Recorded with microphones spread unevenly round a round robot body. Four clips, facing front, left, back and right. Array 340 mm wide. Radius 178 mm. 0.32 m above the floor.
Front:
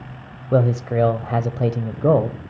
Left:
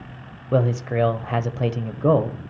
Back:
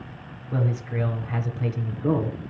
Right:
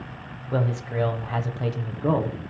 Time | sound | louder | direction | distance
0.5 | a man speaking | left 5 dB, front 10 dB | 25° left | 1.3 m